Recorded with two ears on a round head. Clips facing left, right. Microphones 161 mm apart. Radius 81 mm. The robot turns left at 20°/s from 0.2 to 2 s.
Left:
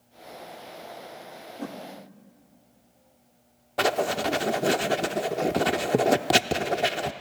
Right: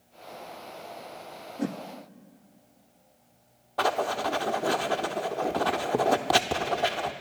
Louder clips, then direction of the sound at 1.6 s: Right 5 dB; 25° right (ahead or behind).